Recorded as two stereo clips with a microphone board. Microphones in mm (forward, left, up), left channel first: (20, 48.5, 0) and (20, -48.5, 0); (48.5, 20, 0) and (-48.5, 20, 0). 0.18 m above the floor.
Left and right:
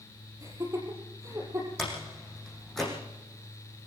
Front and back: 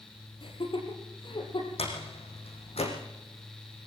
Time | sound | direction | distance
0.4 | laughter | 30° right | 5.5 m
1.8 | a door slam | straight ahead | 6 m